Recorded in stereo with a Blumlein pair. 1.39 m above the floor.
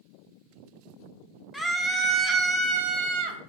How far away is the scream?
About 1.1 m.